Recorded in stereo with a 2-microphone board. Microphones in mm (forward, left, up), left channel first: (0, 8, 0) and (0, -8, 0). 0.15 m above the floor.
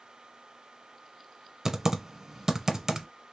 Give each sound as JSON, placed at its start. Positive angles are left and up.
{"t": 1.6, "sound": "typing on a keyboard", "side_deg": -25, "distance_m": 0.8}